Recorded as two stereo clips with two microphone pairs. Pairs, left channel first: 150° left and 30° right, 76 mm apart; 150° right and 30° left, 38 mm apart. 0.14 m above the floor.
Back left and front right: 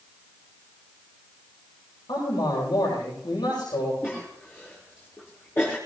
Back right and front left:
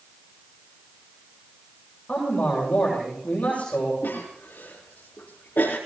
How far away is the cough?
About 4.5 m.